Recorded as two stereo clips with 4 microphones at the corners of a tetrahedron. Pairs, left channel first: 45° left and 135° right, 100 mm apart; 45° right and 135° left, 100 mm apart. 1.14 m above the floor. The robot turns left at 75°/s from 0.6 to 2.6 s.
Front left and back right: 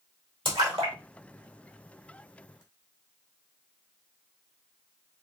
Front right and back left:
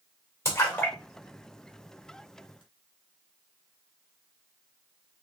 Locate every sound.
0.5 s a splash: 105° right, 2.0 m; by 2.6 s 105° left, 2.0 m